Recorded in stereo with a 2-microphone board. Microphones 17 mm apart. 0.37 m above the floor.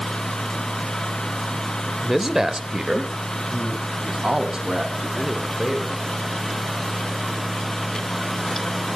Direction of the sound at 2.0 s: 5° right (ahead or behind).